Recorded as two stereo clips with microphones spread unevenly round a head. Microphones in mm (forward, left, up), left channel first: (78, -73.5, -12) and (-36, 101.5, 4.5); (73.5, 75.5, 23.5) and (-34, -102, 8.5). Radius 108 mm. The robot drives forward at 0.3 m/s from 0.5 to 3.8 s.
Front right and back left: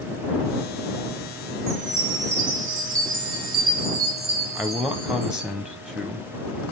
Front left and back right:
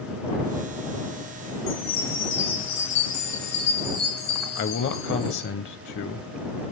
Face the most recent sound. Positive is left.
turn(degrees=35)